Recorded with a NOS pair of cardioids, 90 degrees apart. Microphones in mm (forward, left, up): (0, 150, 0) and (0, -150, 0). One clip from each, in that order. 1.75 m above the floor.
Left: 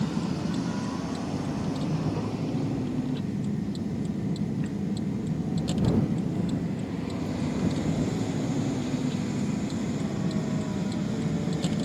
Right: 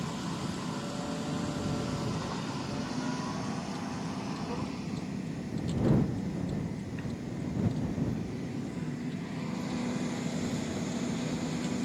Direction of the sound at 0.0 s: 70° left.